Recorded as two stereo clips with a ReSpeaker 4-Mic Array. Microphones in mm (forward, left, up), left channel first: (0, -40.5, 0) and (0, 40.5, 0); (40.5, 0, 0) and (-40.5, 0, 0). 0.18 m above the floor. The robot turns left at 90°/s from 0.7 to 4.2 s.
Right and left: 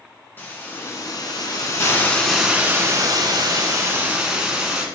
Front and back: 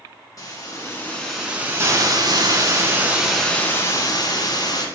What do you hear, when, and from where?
0.4 s a hiss: 35° right, 1.6 m; by 4.9 s 10° left, 1.6 m